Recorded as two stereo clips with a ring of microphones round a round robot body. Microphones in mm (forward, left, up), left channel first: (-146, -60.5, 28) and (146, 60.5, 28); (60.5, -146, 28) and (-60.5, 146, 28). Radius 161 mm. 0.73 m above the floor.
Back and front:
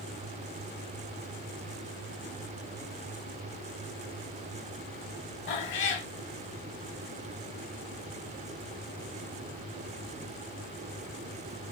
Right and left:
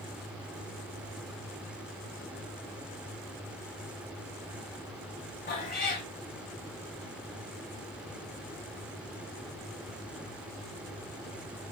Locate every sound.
5.5 s a cat meowing: 120° right, 0.7 m